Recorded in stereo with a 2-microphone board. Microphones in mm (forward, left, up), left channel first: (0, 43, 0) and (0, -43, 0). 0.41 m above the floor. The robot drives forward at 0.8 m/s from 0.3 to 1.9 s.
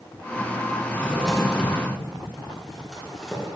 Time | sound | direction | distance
0.9 | a drawer | 10° left (ahead or behind) | 2.5 m